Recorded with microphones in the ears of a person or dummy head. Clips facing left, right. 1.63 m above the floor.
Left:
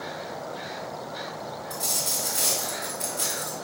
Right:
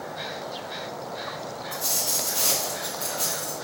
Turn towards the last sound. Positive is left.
turn(degrees=25)  # may be behind; listen again after turning